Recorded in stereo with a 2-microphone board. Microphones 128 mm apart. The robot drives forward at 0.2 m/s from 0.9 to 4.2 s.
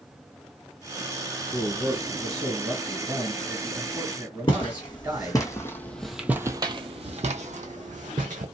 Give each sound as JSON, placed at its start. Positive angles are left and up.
{"t": 1.5, "sound": "a man speaking", "side_deg": -25, "distance_m": 1.6}
{"t": 4.5, "sound": "footsteps", "side_deg": 45, "distance_m": 1.2}